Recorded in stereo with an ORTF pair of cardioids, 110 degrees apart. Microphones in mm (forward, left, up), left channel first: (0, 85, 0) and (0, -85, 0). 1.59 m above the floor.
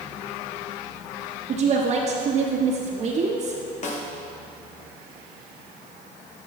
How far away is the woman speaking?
About 1.1 m.